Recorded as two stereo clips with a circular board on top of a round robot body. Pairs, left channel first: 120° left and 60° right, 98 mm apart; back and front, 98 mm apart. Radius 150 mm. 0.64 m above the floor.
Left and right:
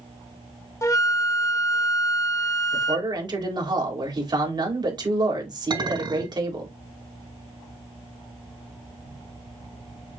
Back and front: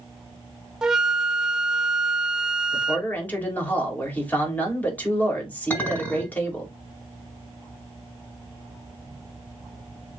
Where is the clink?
105° right, 5.5 m.